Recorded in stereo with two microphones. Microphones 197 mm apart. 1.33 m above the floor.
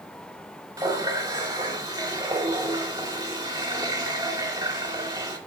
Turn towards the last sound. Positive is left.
turn(degrees=-20)  # may be behind; listen again after turning